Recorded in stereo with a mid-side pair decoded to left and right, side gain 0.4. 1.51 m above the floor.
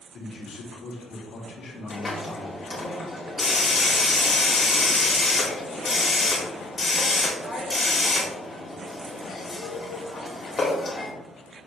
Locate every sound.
0.1 s a man speaking: 60° left, 3 m
1.9 s a hiss: 35° left, 2.5 m